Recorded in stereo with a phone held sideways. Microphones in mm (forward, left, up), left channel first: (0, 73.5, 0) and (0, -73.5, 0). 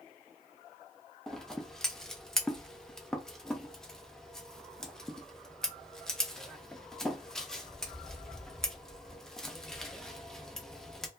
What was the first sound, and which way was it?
Scissors, 5° left (ahead or behind).